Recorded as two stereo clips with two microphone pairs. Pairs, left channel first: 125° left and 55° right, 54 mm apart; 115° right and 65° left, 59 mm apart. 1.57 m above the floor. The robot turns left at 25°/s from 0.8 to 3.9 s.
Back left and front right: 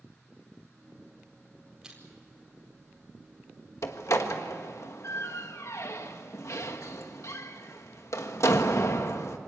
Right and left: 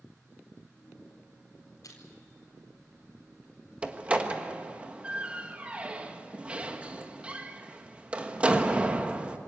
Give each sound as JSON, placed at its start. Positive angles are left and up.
{"t": 1.8, "sound": "crushing", "azimuth_deg": -130, "distance_m": 4.5}
{"t": 3.8, "sound": "a door slam", "azimuth_deg": 135, "distance_m": 1.4}